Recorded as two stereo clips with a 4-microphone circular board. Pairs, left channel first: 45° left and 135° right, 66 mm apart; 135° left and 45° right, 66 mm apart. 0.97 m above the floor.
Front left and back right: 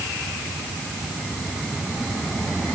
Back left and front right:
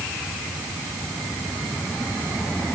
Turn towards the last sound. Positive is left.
No sound to turn to.